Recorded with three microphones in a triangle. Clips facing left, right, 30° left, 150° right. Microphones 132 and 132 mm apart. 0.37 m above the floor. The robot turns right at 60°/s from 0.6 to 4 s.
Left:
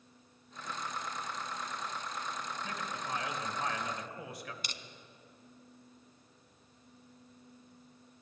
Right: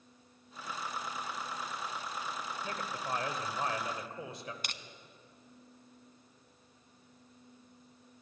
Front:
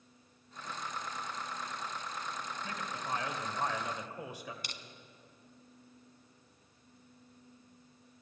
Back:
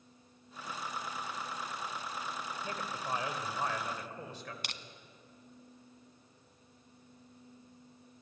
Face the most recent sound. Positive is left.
turn(degrees=-125)